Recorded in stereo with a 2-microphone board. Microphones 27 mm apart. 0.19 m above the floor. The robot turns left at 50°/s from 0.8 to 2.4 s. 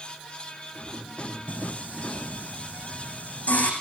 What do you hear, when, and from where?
1.5 s singing: 105° left, 5 m; by 3.7 s 55° left, 5 m